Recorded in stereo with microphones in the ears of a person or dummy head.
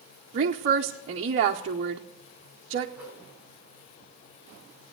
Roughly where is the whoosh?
Centre.